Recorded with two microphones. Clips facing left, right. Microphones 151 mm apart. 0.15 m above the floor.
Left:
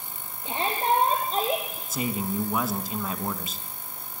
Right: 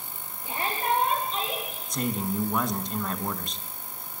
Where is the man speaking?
5° left (ahead or behind), 1.6 m.